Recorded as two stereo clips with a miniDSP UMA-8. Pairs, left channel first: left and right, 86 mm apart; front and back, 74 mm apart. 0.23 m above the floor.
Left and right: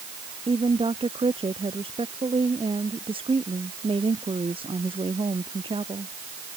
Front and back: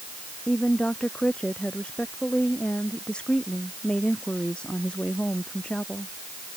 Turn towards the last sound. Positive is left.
turn(degrees=-75)